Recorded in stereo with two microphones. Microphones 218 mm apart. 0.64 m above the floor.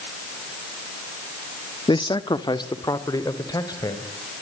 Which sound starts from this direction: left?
A man speaking, at 1.9 s.